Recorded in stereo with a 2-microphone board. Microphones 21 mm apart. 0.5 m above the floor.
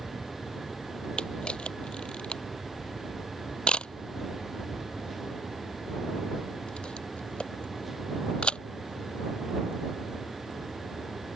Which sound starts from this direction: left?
A camera shutter, at 1.2 s.